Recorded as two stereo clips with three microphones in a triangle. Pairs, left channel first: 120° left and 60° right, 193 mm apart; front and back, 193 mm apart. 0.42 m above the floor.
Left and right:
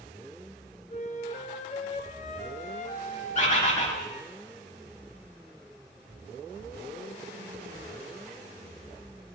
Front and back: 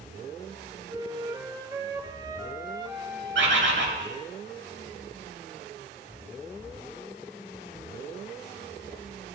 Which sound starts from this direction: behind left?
A flute, at 0.9 s.